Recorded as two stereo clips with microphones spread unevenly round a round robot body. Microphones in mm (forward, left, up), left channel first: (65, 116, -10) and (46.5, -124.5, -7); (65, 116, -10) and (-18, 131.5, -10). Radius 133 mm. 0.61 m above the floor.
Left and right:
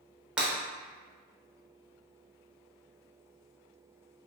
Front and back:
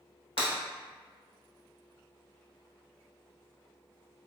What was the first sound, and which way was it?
Breaking glass, 10° right.